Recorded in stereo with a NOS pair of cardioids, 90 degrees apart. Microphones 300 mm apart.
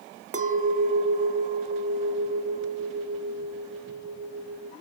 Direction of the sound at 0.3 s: 25° right.